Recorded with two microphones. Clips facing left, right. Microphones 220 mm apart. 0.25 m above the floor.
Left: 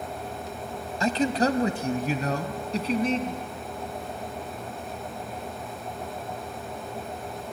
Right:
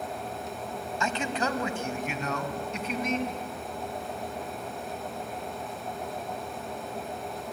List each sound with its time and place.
1.0 s a man speaking: 40° left (ahead or behind), 1.4 m; by 3.4 s 35° left (ahead or behind), 2.5 m